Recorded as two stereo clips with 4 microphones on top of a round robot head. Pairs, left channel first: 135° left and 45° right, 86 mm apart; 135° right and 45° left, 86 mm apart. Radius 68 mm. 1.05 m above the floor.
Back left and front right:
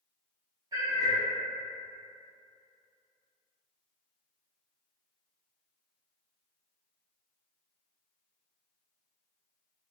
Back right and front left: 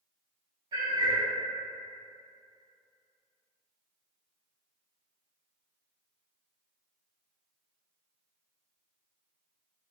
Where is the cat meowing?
5° left, 1.0 m.